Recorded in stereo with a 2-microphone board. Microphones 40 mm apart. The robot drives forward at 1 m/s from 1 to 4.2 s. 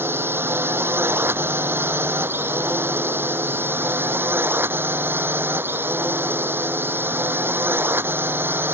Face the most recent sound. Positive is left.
turn(degrees=-65)  # may be behind; listen again after turning